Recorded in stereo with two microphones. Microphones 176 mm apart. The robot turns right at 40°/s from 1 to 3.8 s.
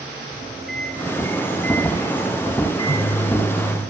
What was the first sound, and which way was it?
A microwave, centre (ahead or behind).